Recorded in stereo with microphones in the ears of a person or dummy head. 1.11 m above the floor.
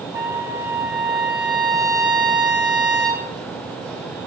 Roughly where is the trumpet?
Centre.